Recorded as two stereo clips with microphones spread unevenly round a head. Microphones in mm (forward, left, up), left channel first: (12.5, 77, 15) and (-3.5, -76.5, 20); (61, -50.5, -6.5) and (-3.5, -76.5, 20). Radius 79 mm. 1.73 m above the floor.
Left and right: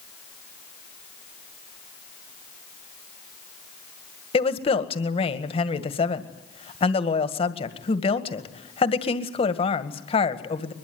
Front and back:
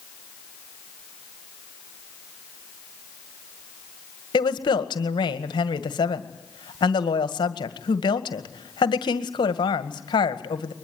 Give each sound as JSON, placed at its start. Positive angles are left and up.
{"t": 4.3, "sound": "a woman speaking", "azimuth_deg": 30, "distance_m": 1.9}